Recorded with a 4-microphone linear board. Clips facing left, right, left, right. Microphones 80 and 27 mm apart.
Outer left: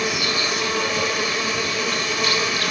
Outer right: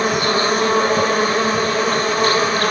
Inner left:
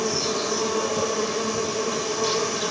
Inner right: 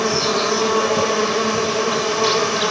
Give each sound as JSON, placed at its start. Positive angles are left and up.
{"t": 0.0, "sound": "an insect", "side_deg": -40, "distance_m": 0.7}